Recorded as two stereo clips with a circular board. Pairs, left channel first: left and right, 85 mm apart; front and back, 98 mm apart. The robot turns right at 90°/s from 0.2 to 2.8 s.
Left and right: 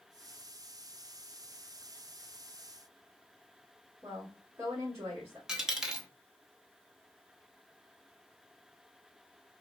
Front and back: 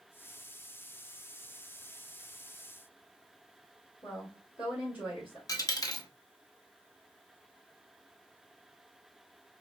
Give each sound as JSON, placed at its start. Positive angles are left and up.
{"t": 4.0, "sound": "a woman speaking", "azimuth_deg": -30, "distance_m": 2.5}
{"t": 5.5, "sound": "a dropped coin", "azimuth_deg": -15, "distance_m": 0.8}